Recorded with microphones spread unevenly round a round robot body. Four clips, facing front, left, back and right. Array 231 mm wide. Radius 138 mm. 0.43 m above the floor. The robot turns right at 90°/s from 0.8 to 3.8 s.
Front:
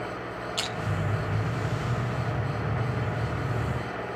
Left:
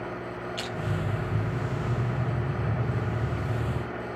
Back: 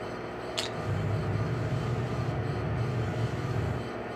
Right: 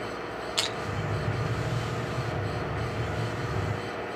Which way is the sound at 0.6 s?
170° right.